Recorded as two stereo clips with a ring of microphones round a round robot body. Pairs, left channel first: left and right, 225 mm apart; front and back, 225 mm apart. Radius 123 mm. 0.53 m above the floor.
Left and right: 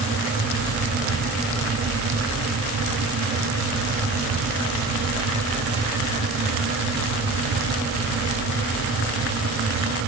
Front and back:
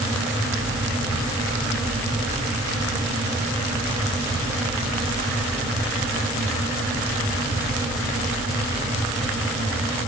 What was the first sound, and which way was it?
Only background noise.